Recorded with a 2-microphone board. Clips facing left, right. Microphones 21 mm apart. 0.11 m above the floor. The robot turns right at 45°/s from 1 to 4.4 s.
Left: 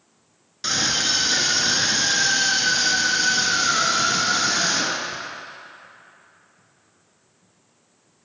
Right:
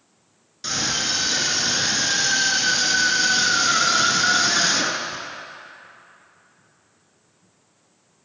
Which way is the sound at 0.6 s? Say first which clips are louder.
Left 2 dB; 25° left (ahead or behind).